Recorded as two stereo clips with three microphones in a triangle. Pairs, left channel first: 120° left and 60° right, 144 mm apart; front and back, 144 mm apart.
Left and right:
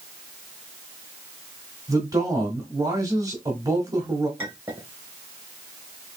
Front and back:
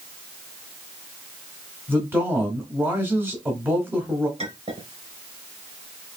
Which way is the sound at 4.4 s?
135° right.